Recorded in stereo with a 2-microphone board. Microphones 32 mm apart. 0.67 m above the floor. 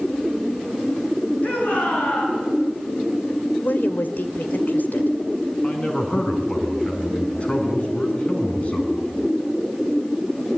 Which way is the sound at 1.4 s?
55° left (ahead or behind).